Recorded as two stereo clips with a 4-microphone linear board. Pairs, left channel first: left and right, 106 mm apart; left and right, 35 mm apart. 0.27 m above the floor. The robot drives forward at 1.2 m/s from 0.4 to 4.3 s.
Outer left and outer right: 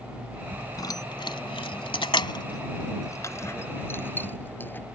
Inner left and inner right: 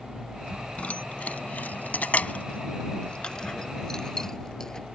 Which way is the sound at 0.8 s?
40° left (ahead or behind).